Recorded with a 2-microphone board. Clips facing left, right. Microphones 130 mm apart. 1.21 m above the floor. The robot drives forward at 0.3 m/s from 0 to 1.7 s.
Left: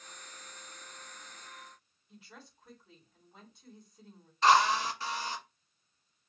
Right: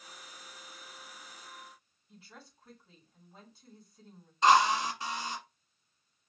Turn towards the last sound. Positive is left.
turn(degrees=-20)  # may be behind; listen again after turning